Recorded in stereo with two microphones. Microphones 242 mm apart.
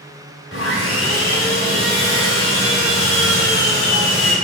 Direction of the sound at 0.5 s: 60° left (ahead or behind).